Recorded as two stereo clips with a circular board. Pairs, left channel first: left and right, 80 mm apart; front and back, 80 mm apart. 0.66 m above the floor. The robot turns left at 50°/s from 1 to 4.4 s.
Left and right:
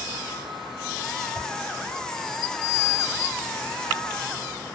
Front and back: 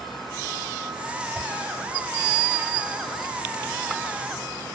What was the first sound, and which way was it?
A whoosh, 60° left.